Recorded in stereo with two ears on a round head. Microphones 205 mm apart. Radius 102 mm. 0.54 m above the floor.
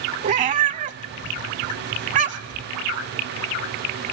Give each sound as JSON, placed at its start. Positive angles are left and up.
{"t": 0.2, "sound": "a cat meowing", "side_deg": -35, "distance_m": 0.8}